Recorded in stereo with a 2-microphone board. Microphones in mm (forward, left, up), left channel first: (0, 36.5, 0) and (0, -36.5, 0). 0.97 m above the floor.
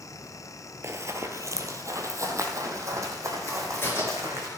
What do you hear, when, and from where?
0.8 s running footsteps: 40° right (ahead or behind), 1.2 m; by 4.5 s 45° right (ahead or behind), 4 m
3.5 s a crack: 35° left (ahead or behind), 5 m